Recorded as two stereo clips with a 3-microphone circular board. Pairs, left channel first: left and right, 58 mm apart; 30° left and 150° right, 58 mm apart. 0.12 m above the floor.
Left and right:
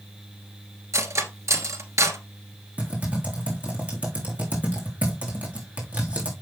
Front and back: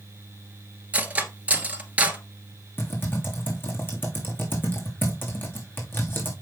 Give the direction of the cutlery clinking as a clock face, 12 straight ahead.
3 o'clock.